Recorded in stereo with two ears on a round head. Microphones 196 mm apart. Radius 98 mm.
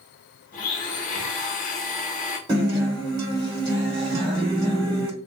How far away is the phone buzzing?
About 0.9 m.